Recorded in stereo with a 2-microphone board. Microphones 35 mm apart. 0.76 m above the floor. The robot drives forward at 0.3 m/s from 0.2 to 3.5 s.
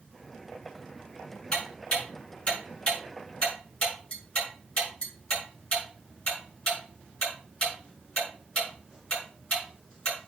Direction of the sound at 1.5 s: 30° left (ahead or behind).